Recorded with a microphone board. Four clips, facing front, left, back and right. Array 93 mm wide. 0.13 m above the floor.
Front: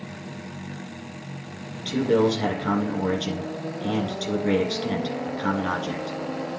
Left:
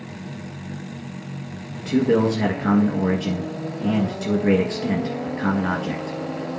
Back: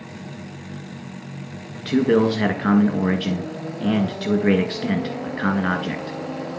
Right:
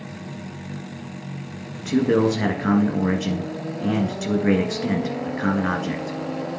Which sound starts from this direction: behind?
A man speaking, at 1.9 s.